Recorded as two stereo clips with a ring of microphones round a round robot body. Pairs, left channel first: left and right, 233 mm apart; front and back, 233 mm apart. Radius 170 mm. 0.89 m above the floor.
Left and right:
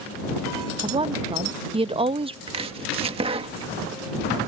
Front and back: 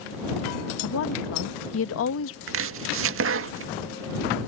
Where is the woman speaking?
25° right.